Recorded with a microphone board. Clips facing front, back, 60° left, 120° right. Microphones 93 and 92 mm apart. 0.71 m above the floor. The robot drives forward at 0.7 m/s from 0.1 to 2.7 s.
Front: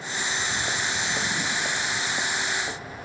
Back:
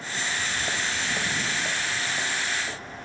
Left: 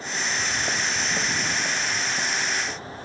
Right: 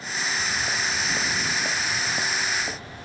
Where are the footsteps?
95° left, 0.8 m; by 3.0 s 65° right, 1.3 m.